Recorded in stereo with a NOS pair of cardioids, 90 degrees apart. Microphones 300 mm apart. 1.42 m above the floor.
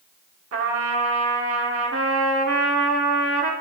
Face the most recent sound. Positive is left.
turn(degrees=-50)